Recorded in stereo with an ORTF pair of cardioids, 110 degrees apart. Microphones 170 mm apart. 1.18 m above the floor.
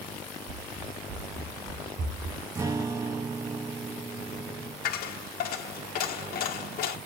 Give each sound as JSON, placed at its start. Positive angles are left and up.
{"t": 0.5, "sound": "running footsteps", "azimuth_deg": -65, "distance_m": 4.0}
{"t": 2.5, "sound": "a guitar", "azimuth_deg": -20, "distance_m": 1.1}
{"t": 4.8, "sound": "a dropped coin", "azimuth_deg": 65, "distance_m": 1.5}